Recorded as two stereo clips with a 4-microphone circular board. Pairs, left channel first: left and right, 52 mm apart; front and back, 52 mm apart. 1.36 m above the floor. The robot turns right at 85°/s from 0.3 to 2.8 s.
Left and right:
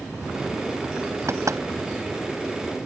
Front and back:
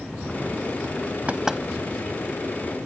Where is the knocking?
120° right; by 1.6 s 90° right.